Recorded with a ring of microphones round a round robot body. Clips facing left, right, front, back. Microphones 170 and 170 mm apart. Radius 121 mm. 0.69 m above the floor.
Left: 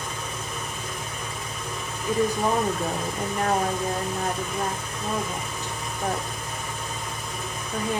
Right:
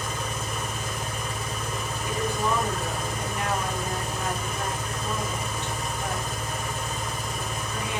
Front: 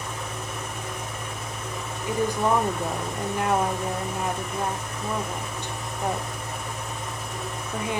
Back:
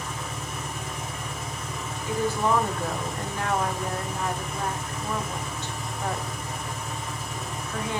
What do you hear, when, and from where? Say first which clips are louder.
0.0 s an engine running: right 2 dB, front 1 dB; 90° right, 2.5 m
2.1 s a woman speaking: left 5 dB, front 1 dB; 70° left, 0.7 m